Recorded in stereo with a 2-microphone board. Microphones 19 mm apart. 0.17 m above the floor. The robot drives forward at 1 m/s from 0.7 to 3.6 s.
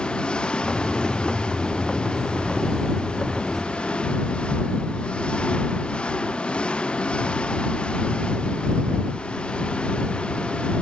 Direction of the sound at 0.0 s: 55° left (ahead or behind).